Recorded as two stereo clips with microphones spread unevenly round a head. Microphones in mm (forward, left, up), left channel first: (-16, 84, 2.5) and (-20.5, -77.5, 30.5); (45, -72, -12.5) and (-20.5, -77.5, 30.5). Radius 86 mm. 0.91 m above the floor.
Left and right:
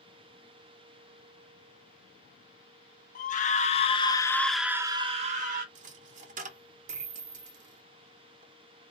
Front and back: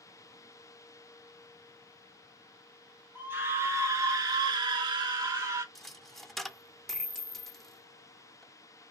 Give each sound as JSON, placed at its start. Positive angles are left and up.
{"t": 3.1, "sound": "a scream", "azimuth_deg": 95, "distance_m": 1.1}
{"t": 5.8, "sound": "a dropped coin", "azimuth_deg": -110, "distance_m": 0.7}